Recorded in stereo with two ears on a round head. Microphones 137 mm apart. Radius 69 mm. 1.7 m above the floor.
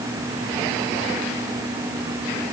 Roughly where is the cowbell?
No cowbell in this recording.